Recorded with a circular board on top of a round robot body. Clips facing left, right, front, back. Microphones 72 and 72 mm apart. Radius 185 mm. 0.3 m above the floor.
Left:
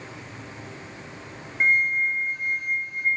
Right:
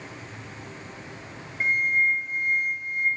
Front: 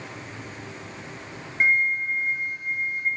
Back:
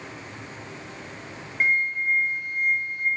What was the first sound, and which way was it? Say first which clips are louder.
A flute: left 1 dB, front 2 dB; 65° left.